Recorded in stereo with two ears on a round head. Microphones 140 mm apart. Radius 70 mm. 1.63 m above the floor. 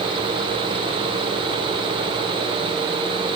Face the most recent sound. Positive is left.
No sound to turn to.